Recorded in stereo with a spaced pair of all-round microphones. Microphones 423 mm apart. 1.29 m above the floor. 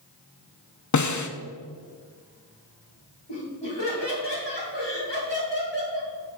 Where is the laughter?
75° left (ahead or behind), 3 m.